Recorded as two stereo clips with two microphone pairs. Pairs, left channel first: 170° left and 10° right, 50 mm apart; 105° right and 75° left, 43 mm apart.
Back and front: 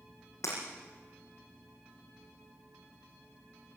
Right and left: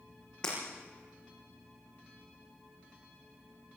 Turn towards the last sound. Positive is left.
turn(degrees=-175)